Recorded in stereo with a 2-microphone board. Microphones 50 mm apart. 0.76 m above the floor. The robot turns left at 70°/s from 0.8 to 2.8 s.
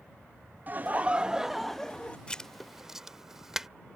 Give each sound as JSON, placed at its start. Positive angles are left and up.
{"t": 0.7, "sound": "laughter", "azimuth_deg": -125}
{"t": 2.3, "sound": "writing", "side_deg": 20}